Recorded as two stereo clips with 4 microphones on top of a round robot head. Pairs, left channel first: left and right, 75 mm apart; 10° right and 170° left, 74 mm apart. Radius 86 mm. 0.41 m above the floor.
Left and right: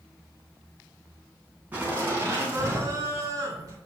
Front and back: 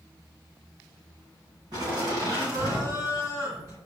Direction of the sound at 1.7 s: 160° right.